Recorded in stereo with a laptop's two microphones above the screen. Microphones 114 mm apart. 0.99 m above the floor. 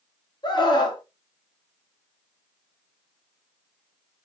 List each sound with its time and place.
0.4 s a scream: 40° left (ahead or behind), 1.0 m